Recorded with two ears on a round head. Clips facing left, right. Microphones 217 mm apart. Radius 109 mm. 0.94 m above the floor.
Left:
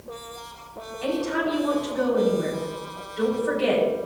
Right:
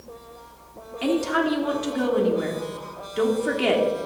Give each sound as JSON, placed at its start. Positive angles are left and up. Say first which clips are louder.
{"t": 1.0, "sound": "a woman speaking", "louder": "right 3 dB", "side_deg": -65, "distance_m": 2.5}